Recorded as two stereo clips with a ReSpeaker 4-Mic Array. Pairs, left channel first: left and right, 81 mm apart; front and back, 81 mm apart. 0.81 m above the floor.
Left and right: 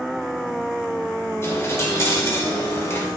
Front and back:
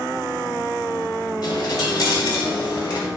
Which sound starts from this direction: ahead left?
A dropped coin, at 1.4 s.